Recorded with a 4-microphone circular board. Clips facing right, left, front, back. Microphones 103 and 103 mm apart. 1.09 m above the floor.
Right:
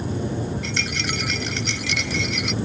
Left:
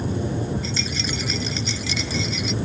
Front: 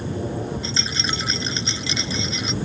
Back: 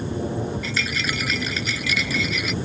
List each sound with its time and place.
0.6 s a rattle: 65° right